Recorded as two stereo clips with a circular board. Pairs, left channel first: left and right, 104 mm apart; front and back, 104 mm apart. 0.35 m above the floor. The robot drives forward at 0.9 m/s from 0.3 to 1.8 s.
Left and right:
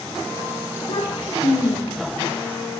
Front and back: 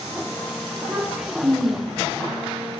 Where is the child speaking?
95° left, 9 m; by 2.2 s 100° left, 9.5 m.